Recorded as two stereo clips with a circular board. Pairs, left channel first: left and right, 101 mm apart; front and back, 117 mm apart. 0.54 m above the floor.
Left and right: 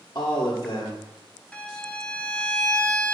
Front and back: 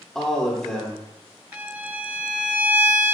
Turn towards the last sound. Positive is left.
turn(degrees=140)